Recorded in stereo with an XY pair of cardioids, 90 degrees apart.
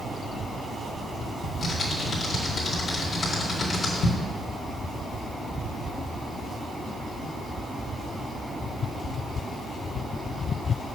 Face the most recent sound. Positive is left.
turn(degrees=50)